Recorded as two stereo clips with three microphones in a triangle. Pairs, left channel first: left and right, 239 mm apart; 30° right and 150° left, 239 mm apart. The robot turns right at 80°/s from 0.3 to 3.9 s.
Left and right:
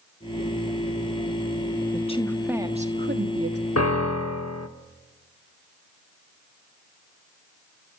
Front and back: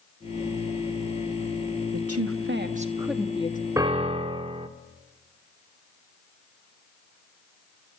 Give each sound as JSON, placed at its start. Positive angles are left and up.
{"t": 1.9, "sound": "a woman speaking", "azimuth_deg": 140, "distance_m": 1.3}
{"t": 3.8, "sound": "a piano", "azimuth_deg": 70, "distance_m": 1.0}